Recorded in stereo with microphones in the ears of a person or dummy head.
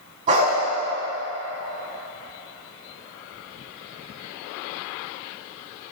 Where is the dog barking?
35° right (ahead or behind), 4 m.